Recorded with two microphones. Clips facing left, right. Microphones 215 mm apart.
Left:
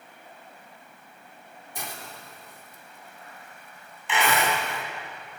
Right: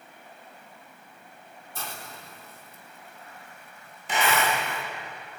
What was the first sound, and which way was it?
A hiss, 15° left (ahead or behind).